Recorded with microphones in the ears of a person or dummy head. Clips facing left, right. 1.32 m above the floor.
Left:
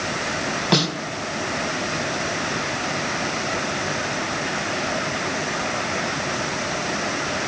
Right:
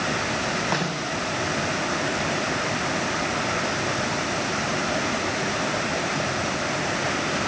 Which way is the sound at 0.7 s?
50° left (ahead or behind).